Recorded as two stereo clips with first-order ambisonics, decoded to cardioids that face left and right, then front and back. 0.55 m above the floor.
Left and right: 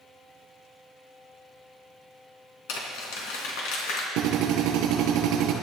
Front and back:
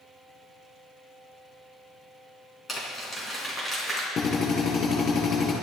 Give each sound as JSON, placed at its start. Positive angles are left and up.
{"t": 2.7, "sound": "crumpling", "azimuth_deg": 75, "distance_m": 4.0}
{"t": 4.2, "sound": "a drill", "azimuth_deg": -60, "distance_m": 6.0}